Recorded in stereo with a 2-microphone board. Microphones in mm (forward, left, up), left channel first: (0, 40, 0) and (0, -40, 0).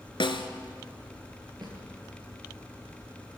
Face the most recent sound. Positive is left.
turn(degrees=-60)  # may be behind; listen again after turning